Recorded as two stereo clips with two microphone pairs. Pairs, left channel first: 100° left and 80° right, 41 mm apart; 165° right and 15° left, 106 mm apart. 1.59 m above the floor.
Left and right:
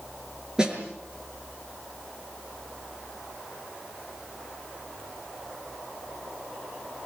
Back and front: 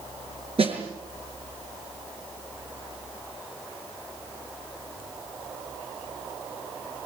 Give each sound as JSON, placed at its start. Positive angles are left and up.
{"t": 0.6, "sound": "a snare drum", "azimuth_deg": -10, "distance_m": 6.5}